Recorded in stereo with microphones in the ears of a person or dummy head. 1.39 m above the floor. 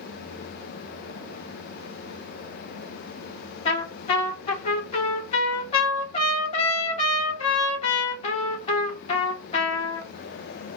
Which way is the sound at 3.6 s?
45° left (ahead or behind).